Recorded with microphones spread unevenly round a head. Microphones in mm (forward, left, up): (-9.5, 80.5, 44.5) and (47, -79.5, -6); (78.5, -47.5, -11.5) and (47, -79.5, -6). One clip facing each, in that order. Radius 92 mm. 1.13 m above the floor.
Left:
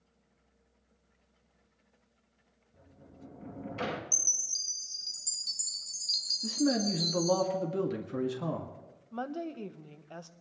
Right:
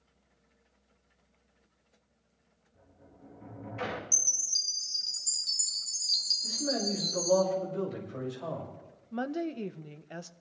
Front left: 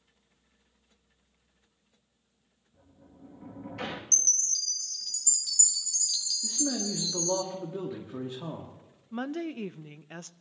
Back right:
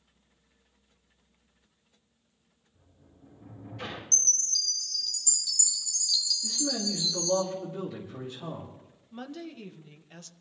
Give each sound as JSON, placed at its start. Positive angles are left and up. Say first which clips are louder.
{"t": 2.7, "sound": "a sliding door", "louder": "left 3 dB, front left 5 dB", "azimuth_deg": 65, "distance_m": 2.0}
{"t": 4.1, "sound": "a chime", "louder": "right 1 dB, back right 2 dB", "azimuth_deg": 5, "distance_m": 1.4}
{"t": 6.4, "sound": "a man speaking", "louder": "left 4 dB, front left 3 dB", "azimuth_deg": 125, "distance_m": 1.9}
{"t": 9.1, "sound": "a woman speaking", "louder": "right 4 dB, front left 7 dB", "azimuth_deg": -5, "distance_m": 0.6}